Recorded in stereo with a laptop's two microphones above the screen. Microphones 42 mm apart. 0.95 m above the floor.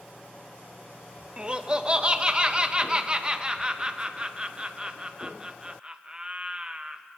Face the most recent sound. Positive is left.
turn(degrees=-25)  # may be behind; listen again after turning